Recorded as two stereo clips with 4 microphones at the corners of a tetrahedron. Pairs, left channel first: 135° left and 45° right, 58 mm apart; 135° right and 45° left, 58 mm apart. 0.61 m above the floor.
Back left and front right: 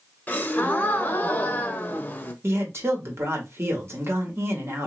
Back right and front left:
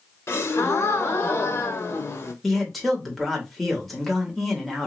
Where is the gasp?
165° right, 0.5 m.